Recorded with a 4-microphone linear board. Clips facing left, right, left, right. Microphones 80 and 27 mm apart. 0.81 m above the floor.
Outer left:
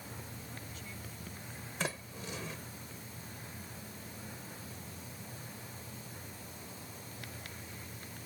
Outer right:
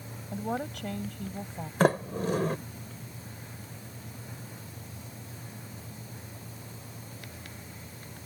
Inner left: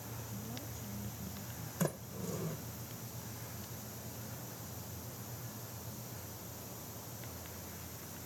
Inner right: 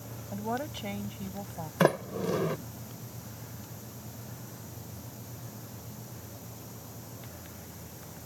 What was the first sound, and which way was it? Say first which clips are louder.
A woman speaking: outer right 15 dB, inner right 17 dB; 75° right (ahead or behind).